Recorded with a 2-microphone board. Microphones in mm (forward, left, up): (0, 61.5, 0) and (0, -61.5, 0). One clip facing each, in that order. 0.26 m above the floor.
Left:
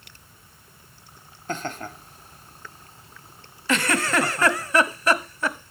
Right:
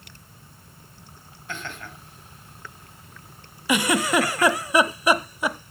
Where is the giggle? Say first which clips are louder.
Right 2 dB; 15° right (ahead or behind), 0.8 m.